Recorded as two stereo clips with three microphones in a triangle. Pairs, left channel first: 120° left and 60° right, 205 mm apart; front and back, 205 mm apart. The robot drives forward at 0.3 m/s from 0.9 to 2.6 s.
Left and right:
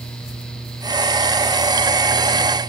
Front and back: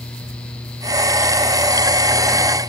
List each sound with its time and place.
Only background noise.